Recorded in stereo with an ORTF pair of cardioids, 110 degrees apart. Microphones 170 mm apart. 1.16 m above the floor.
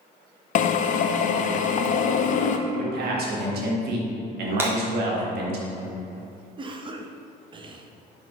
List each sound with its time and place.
0.6 s a drill: 50° left, 0.6 m
2.7 s a man speaking: 70° right, 1.6 m
4.6 s breaking glass: 15° right, 1.8 m
6.6 s a cough: 30° right, 0.8 m